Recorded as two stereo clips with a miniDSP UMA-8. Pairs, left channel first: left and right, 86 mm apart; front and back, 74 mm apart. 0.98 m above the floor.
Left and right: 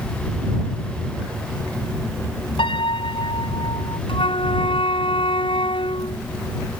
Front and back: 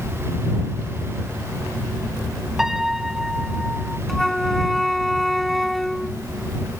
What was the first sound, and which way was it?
A piano, 95° left.